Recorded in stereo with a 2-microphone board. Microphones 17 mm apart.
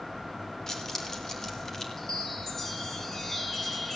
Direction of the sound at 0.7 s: 25° left (ahead or behind).